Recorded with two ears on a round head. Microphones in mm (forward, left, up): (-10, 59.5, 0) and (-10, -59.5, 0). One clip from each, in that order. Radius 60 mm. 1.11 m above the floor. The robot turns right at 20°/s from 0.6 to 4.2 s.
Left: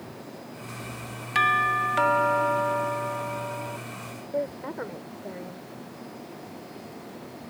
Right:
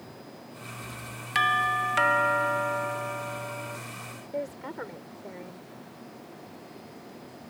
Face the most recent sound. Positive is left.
turn(degrees=-85)